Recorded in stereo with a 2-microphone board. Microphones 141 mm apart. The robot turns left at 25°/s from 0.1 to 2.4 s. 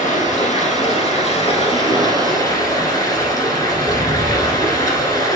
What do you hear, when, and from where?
0.0 s running water: 85° left, 1.7 m; by 5.4 s 30° left, 1.7 m